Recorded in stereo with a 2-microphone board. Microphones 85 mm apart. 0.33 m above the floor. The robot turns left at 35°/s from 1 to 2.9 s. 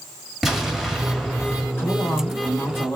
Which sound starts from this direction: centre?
An explosion, at 0.4 s.